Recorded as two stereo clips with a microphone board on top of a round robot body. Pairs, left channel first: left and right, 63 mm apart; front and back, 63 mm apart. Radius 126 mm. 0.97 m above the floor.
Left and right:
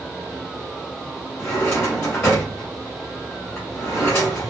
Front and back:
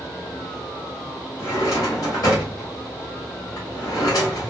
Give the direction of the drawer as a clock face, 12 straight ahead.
11 o'clock.